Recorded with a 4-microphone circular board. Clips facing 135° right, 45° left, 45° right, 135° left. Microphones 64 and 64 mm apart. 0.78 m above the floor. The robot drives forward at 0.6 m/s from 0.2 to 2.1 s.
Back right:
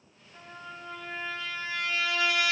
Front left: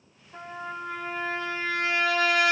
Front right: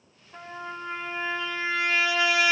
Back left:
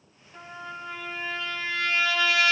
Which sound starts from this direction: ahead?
A trumpet, at 0.3 s.